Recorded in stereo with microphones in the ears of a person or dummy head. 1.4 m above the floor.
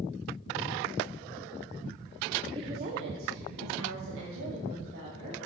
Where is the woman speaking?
20° right (ahead or behind), 0.9 m; by 5.4 s 65° right (ahead or behind), 2.5 m.